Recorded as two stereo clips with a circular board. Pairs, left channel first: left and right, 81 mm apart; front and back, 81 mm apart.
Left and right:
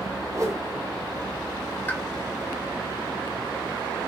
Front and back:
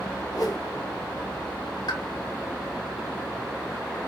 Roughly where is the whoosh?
Ahead right.